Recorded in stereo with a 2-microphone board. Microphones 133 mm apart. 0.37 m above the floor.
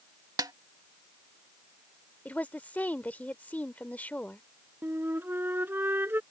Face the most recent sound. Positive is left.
turn(degrees=-15)  # may be behind; listen again after turning